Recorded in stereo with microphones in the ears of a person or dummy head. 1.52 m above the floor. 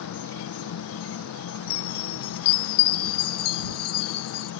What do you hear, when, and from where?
0.0 s an insect: 70° left (ahead or behind)
1.7 s a chime: 30° left (ahead or behind)